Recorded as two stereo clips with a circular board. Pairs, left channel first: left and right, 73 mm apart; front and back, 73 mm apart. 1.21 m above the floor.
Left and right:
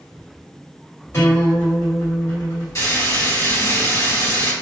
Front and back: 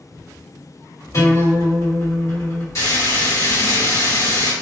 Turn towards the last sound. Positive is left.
turn(degrees=45)